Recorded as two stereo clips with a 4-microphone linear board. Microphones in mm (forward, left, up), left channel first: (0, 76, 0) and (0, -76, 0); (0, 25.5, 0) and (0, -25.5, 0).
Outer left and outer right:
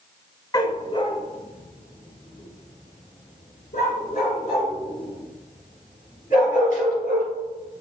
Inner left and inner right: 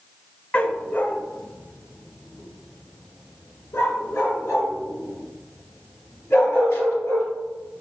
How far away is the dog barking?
About 0.7 m.